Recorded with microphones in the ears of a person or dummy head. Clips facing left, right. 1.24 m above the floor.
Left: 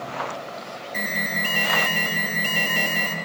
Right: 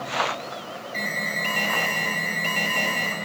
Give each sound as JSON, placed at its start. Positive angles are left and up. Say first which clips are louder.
{"t": 0.9, "sound": "an alarm", "louder": "left 2 dB", "side_deg": 10, "distance_m": 3.0}